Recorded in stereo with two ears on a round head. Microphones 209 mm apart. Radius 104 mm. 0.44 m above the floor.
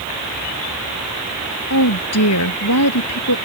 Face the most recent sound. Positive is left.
turn(degrees=80)